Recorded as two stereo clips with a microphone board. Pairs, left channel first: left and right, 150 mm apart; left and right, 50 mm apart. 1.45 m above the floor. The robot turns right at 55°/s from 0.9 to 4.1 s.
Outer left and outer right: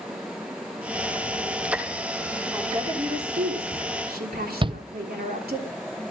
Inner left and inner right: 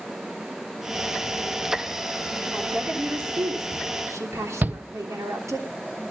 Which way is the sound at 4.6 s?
35° right (ahead or behind).